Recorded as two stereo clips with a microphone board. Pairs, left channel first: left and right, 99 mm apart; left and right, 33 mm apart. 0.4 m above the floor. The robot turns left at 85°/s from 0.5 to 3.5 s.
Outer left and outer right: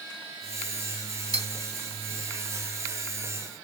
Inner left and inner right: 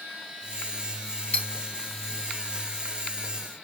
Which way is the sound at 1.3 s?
35° left (ahead or behind).